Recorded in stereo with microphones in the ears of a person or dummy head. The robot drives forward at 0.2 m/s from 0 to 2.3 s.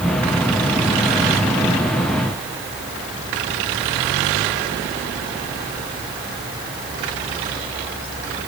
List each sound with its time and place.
Only background noise.